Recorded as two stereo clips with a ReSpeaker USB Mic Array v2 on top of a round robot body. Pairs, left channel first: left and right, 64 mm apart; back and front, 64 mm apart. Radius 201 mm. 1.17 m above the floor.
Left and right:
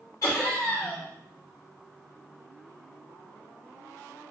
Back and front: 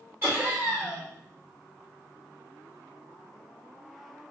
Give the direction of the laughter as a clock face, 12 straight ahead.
10 o'clock.